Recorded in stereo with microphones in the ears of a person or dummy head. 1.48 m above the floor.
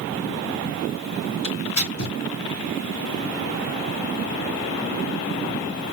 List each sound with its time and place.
1.4 s tearing paper: 85° left, 3 m